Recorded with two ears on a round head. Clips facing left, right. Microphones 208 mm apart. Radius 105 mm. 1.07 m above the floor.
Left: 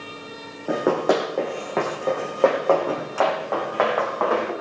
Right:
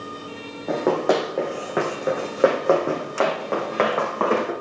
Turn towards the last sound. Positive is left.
turn(degrees=-45)  # may be behind; listen again after turning